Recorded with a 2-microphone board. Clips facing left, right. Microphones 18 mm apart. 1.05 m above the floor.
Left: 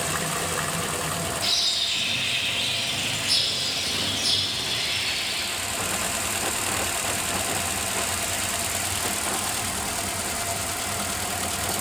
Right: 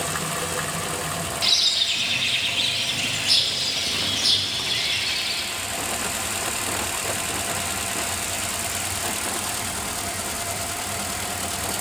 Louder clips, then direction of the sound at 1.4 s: Right 4 dB; 25° right (ahead or behind).